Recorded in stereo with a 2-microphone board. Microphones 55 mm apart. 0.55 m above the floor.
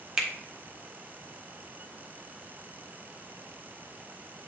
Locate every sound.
0.2 s a finger snap: 10° right (ahead or behind), 1.4 m